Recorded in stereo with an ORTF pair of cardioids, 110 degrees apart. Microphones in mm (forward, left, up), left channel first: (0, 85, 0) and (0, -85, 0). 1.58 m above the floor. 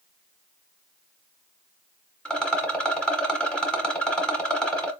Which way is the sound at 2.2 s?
5° left.